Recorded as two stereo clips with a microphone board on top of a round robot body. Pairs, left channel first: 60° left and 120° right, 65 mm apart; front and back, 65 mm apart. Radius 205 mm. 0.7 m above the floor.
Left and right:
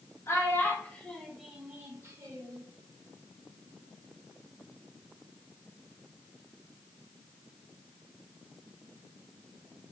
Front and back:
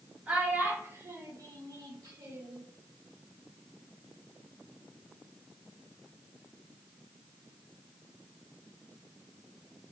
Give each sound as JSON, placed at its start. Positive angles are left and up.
{"t": 0.3, "sound": "a child speaking", "azimuth_deg": 110, "distance_m": 1.2}